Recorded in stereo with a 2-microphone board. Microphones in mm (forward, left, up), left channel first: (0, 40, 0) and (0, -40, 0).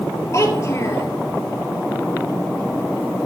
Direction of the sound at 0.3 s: 35° left (ahead or behind).